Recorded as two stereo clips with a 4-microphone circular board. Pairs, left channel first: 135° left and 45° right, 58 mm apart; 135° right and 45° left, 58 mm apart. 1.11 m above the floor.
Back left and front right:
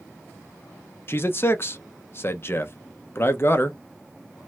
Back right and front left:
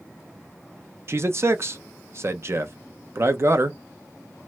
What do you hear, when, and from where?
1.1 s a man speaking: 85° left, 0.6 m